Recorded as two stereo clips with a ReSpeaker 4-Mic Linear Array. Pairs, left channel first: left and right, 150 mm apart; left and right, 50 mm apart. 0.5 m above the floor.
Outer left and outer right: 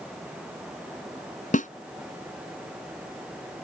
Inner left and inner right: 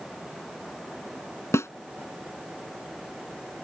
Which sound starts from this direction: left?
A snare drum, at 1.5 s.